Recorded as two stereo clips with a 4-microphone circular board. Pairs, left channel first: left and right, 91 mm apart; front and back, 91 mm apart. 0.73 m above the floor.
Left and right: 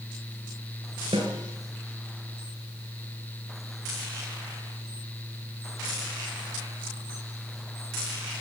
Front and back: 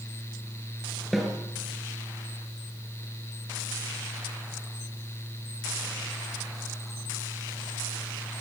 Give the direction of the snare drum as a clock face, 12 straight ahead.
3 o'clock.